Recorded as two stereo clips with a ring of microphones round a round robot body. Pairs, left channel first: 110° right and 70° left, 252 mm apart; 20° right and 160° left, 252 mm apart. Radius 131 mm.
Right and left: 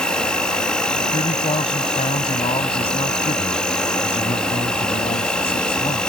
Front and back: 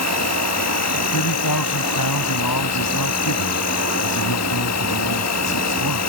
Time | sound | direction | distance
0.0 | an insect | 25° right | ?
1.1 | a man speaking | 40° right | ?